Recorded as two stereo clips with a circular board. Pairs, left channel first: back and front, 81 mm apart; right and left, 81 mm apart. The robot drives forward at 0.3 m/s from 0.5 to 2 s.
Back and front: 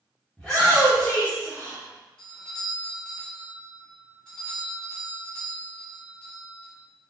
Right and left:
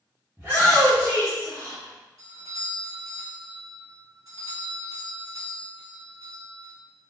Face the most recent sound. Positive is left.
turn(degrees=110)